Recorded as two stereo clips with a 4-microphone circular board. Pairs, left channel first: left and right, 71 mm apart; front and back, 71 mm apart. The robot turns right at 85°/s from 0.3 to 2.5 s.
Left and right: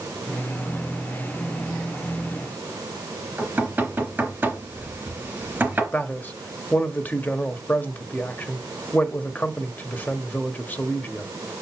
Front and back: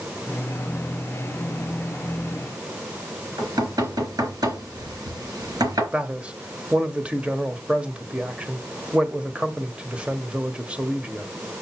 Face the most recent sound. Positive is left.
turn(degrees=125)